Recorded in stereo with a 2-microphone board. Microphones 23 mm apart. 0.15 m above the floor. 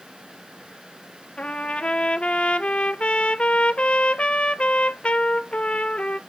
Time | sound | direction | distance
1.4 | a trumpet | 60° left (ahead or behind) | 0.6 m